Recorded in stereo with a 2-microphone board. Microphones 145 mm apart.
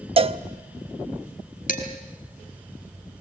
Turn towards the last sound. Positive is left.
turn(degrees=65)  # may be behind; listen again after turning